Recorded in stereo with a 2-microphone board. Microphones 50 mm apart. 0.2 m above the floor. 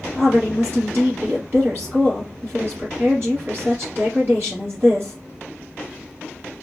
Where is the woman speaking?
40° right (ahead or behind), 3.5 m.